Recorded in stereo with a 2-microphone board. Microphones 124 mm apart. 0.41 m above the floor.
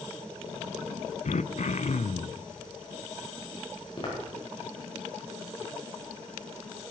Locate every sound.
1.2 s throat clearing: 65° left (ahead or behind), 0.5 m
4.0 s footsteps: 45° left (ahead or behind), 6 m